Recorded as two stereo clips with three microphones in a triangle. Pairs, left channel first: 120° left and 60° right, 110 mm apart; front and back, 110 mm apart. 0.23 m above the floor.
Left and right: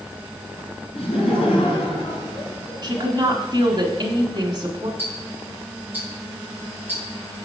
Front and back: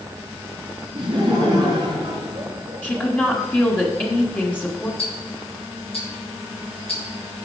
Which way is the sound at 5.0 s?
10° left.